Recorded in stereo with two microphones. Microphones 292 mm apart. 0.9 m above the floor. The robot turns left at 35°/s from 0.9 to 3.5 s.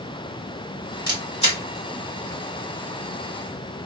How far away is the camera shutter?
About 2.0 m.